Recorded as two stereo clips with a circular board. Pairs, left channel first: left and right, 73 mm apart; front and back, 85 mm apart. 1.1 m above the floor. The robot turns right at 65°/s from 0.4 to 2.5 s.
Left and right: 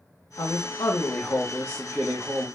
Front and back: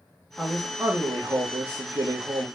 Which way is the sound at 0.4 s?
85° left.